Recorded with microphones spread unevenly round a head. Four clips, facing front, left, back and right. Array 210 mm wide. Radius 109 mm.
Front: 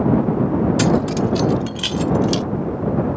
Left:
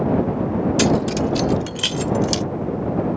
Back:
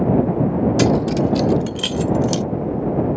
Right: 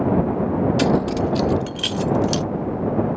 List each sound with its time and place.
0.8 s keys jangling: 165° left; by 2.4 s 160° left